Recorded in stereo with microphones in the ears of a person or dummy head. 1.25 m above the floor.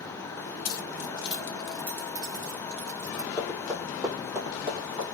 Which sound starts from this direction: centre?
Running footsteps, at 3.4 s.